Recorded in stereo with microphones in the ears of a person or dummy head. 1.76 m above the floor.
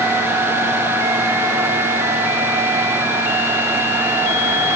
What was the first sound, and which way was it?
Only background noise.